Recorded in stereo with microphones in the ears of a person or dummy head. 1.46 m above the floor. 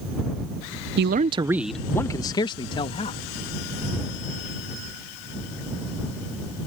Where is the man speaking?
65° right (ahead or behind); by 3.2 s 35° left (ahead or behind).